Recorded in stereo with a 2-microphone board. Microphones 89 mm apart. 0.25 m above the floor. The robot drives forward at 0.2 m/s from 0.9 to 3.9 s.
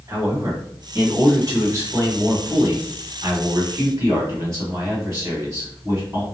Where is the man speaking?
40° right (ahead or behind), 1.6 m; by 6.2 s 35° right (ahead or behind), 1.8 m.